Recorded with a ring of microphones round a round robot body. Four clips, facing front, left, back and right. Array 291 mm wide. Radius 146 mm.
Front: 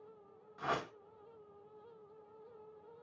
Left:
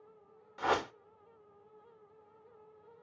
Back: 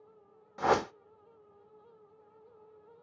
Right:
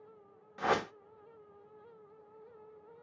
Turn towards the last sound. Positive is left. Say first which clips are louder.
# even, back 11 dB
turn(degrees=-165)